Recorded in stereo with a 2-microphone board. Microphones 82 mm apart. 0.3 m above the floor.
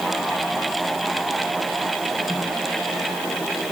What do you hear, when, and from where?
Only background noise.